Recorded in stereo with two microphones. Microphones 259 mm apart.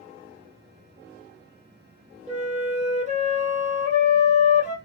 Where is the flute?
30° right (ahead or behind), 1.1 m.